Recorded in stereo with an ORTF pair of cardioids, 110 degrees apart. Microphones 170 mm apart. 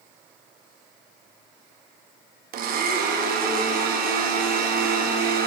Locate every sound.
2.5 s a blender: 65° right, 0.7 m